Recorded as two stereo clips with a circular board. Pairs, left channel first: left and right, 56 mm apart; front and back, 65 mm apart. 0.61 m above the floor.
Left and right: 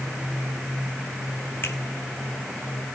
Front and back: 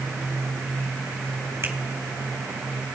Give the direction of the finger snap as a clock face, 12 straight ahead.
8 o'clock.